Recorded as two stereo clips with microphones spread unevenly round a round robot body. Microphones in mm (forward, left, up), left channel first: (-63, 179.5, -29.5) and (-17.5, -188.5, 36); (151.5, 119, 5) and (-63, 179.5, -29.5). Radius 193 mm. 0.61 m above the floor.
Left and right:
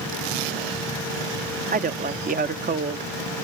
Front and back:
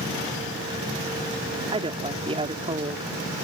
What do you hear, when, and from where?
1.7 s a woman speaking: 150° right